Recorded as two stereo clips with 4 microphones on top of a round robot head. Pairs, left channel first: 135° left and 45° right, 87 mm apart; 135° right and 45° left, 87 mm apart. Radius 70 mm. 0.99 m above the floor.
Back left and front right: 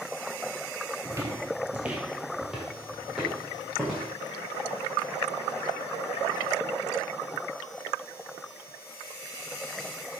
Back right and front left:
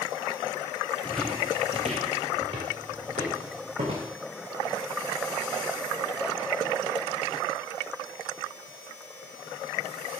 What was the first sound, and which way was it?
Footsteps, 80° right.